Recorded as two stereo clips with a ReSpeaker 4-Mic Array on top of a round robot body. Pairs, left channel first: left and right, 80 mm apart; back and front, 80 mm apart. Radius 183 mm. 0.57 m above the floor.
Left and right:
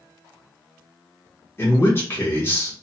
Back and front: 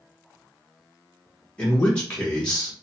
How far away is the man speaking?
About 1.2 m.